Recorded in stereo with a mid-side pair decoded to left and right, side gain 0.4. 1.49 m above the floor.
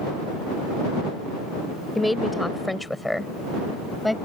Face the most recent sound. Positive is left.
turn(degrees=10)